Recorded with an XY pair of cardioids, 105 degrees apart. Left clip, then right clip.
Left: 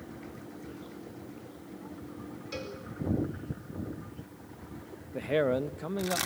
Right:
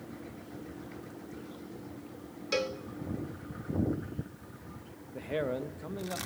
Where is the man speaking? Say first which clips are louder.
Left 6 dB; 40° left, 0.9 m.